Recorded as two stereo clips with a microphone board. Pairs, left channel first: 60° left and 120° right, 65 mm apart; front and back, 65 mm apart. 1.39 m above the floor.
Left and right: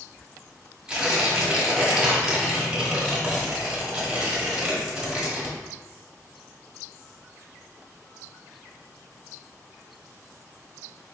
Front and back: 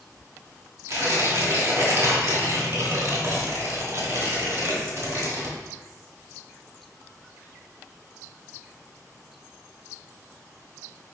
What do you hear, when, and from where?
0.9 s tearing paper: 175° left, 1.3 m